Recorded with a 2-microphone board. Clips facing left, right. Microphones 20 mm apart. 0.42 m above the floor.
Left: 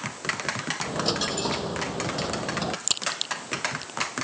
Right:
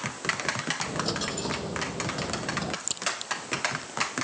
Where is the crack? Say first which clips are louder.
Left 3 dB; 40° left (ahead or behind).